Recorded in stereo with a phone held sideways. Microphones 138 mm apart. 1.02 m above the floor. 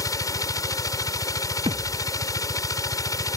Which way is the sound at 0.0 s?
25° left (ahead or behind).